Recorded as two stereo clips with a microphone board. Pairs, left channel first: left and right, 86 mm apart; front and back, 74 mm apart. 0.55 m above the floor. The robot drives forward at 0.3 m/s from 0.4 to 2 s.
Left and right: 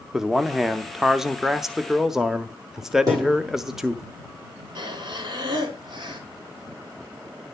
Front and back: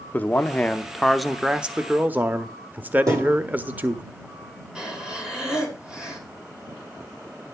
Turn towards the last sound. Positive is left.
turn(degrees=-100)